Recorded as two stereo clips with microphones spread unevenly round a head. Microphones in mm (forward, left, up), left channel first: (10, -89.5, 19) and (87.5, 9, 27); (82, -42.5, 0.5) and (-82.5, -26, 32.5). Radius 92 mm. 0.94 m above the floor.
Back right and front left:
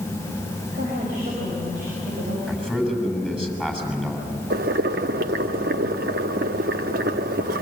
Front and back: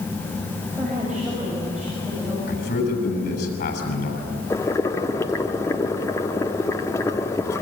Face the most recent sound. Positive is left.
turn(degrees=75)